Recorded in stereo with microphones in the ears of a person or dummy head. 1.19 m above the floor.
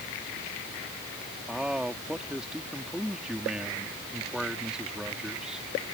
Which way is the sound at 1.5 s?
5° right (ahead or behind).